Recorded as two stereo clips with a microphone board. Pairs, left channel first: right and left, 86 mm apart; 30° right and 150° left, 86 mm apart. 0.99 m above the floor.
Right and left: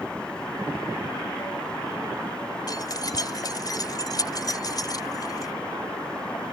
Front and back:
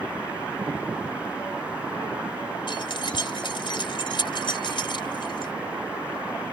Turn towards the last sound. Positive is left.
turn(degrees=-50)